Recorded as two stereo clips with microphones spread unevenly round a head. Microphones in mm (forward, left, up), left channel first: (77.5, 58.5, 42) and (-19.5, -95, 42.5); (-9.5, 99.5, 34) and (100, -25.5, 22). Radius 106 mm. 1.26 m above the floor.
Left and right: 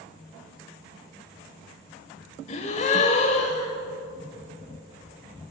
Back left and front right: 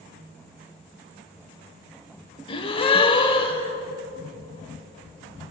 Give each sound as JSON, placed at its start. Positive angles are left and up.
{"t": 2.5, "sound": "a gasp", "azimuth_deg": 100, "distance_m": 1.2}